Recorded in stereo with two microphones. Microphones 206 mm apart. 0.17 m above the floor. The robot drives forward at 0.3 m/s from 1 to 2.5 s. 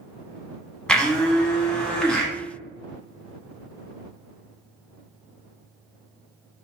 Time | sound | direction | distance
0.9 | a blender | 5° left (ahead or behind) | 0.8 m